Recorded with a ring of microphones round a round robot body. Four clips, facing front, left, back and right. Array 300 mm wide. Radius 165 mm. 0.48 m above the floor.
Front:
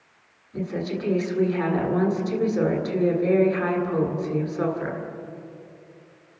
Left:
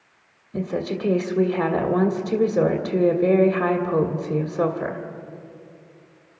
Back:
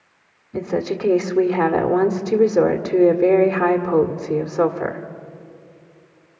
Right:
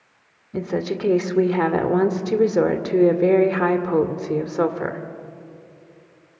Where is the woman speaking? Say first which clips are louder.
Right 2 dB, back 6 dB; 140° right, 1.9 m.